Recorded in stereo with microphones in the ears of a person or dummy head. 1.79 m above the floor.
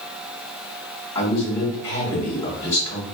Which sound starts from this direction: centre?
A man speaking, at 1.1 s.